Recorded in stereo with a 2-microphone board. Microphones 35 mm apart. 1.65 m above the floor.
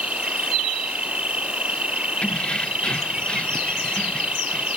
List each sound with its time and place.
0.0 s an insect: 35° right (ahead or behind)
2.2 s keys jangling: 30° left (ahead or behind)